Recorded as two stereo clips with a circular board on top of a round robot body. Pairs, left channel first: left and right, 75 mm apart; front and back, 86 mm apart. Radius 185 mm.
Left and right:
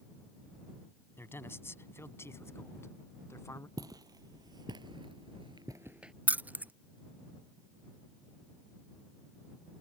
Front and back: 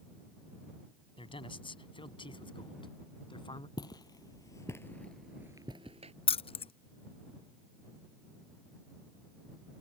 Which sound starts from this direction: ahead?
Keys jangling, at 6.3 s.